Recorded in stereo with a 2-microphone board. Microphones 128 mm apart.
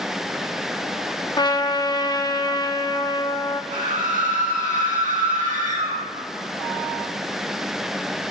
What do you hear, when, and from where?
1.4 s a trumpet: 35° left (ahead or behind), 0.9 m
3.7 s a scream: 70° right (ahead or behind), 5 m